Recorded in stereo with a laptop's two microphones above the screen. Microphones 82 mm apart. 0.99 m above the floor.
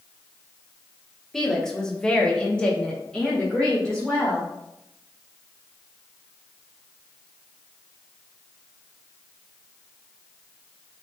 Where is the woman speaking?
5° left (ahead or behind), 0.9 m.